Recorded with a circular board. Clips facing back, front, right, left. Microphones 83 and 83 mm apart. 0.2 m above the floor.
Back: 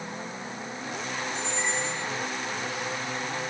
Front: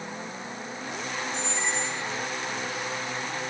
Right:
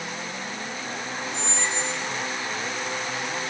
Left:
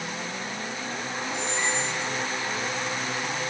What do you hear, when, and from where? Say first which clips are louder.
1.3 s a squeak: even, left 1 dB; 135° left, 3.5 m